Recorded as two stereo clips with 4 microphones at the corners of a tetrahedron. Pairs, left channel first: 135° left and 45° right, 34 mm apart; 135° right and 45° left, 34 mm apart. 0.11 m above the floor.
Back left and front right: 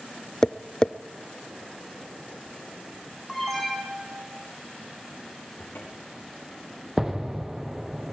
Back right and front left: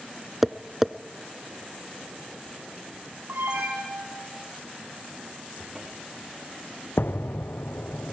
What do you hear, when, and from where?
0.4 s tapping: 125° left, 0.6 m
3.3 s an alarm: 50° left, 9 m
5.6 s a cupboard door: 115° left, 4.5 m
7.0 s an explosion: 125° right, 1.3 m